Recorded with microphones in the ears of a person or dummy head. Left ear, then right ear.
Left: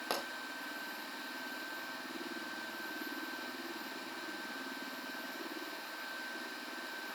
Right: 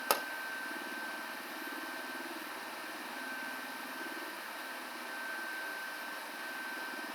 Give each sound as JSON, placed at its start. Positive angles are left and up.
{"t": 0.1, "sound": "a pop", "side_deg": -45, "distance_m": 0.9}